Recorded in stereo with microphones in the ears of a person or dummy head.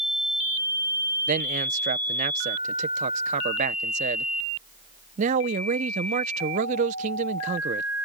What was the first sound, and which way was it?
A man speaking, 40° right (ahead or behind).